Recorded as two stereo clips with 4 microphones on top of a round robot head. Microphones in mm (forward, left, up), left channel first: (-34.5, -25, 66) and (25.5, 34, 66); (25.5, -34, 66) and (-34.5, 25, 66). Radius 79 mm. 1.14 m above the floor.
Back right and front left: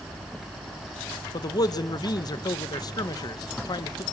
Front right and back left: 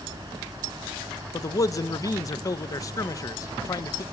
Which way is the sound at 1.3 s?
95° right.